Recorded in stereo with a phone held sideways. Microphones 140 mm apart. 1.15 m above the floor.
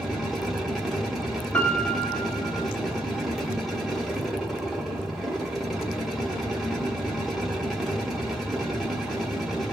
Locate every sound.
0.0 s a machine running: centre (ahead or behind), 1.1 m
1.5 s a piano: 10° left (ahead or behind), 0.9 m